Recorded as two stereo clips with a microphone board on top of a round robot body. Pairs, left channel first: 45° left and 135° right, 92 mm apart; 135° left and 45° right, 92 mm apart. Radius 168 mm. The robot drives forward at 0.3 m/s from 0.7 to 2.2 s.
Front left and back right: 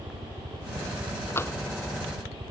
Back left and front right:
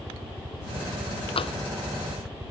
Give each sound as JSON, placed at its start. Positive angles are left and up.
{"t": 0.0, "sound": "a helicopter", "azimuth_deg": -125}
{"t": 1.4, "sound": "tapping", "azimuth_deg": 110}